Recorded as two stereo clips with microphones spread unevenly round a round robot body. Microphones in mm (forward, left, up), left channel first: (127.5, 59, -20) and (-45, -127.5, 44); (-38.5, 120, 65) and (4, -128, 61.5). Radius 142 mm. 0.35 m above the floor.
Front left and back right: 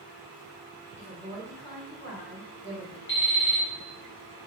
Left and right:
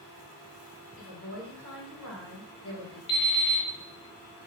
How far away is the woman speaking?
About 1.9 m.